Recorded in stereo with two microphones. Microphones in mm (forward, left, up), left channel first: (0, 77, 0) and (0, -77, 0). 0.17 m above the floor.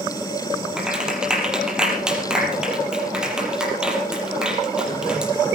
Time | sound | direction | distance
0.8 | a clap | 5° right (ahead or behind) | 4.5 m